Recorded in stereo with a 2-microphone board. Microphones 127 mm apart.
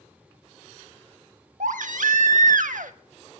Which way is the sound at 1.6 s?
85° right.